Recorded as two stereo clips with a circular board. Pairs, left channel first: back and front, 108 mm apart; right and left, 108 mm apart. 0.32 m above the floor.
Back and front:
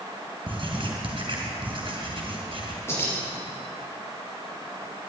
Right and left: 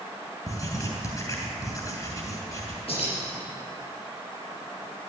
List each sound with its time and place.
0.5 s writing: 35° right, 3 m
2.9 s keys jangling: 115° right, 5 m